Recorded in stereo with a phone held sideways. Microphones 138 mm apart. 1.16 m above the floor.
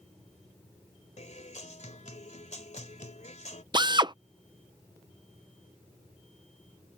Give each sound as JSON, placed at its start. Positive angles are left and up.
{"t": 1.2, "sound": "a guitar", "side_deg": 60}
{"t": 3.7, "sound": "a drill", "side_deg": -35}